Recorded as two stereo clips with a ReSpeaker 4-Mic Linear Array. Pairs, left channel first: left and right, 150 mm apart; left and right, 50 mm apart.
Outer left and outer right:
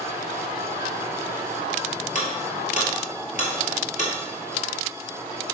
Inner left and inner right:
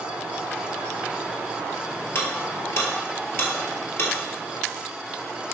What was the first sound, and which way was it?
Ticking, 55° left (ahead or behind).